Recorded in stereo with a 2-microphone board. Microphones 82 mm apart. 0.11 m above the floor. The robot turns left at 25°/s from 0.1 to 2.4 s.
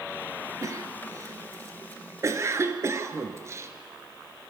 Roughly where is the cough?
Right.